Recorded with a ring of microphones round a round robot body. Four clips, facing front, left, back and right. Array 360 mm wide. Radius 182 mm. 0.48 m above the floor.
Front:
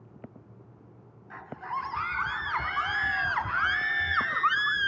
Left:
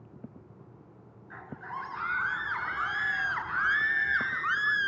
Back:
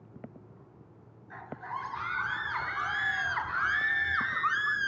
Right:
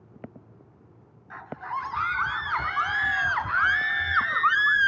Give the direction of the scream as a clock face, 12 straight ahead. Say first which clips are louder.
Right 7 dB, front 4 dB; 2 o'clock.